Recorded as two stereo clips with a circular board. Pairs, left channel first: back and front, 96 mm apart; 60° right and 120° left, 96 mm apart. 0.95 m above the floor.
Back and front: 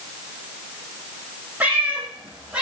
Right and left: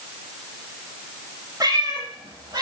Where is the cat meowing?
75° left, 7.5 m.